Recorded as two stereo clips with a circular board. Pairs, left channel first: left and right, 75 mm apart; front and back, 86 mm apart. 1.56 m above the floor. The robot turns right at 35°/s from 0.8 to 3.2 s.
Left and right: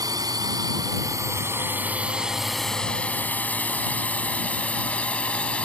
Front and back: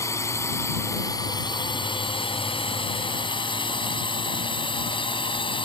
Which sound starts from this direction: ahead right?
A drone, at 0.0 s.